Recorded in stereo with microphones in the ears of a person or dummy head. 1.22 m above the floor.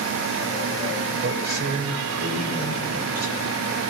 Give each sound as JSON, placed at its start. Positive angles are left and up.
{"t": 1.2, "sound": "a man speaking", "side_deg": -45, "distance_m": 5.5}